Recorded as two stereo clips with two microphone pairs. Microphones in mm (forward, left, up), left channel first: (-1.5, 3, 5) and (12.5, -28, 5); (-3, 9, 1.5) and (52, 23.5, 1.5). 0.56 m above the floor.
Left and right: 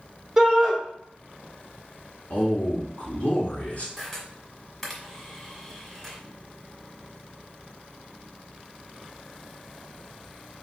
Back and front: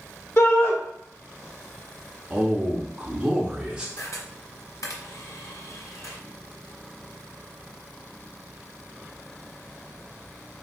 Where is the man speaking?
85° left, 1.1 m.